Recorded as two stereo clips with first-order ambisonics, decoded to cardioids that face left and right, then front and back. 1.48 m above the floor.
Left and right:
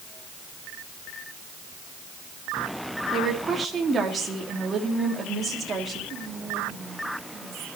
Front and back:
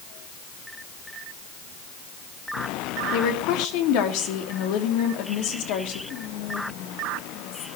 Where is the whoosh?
No whoosh in this recording.